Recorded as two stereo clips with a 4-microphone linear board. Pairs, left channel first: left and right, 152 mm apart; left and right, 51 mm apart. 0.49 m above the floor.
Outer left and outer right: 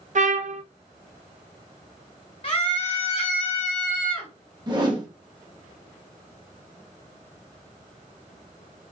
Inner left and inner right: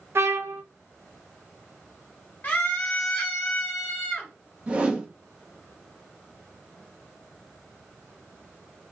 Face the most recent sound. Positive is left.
turn(degrees=-30)  # may be behind; listen again after turning